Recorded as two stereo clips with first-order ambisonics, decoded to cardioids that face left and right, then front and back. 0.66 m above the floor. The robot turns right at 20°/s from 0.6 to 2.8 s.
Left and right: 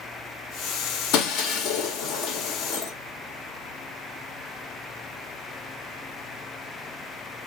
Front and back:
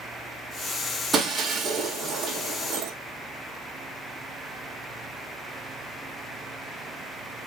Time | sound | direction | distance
1.1 | breaking glass | 105° left | 2 m